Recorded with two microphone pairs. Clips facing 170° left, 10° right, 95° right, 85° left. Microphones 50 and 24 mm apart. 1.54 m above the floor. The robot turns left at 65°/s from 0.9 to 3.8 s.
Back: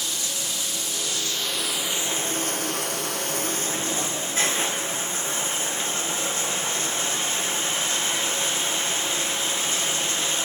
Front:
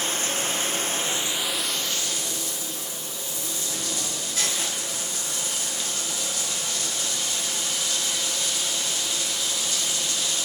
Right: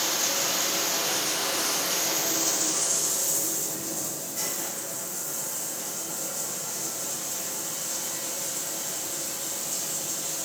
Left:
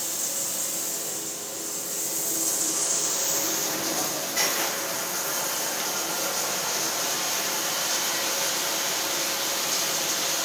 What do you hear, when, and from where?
0.0 s running water: 55° right, 0.8 m; by 10.4 s 115° left, 0.8 m